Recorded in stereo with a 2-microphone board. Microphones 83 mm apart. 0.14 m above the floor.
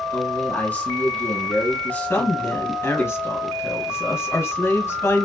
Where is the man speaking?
20° left (ahead or behind), 1.1 m.